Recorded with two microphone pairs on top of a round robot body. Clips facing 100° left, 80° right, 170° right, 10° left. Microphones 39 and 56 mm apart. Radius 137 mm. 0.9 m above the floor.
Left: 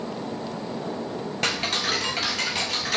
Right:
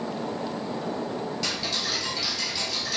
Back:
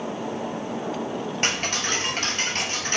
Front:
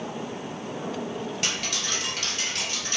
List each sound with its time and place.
1.4 s ticking: 140° left, 2 m